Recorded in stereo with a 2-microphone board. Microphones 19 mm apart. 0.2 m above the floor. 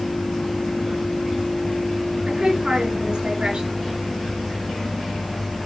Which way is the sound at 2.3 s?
45° right (ahead or behind).